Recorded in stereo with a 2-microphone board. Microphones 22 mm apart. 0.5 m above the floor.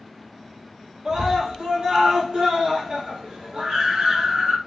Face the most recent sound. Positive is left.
turn(degrees=-45)  # may be behind; listen again after turning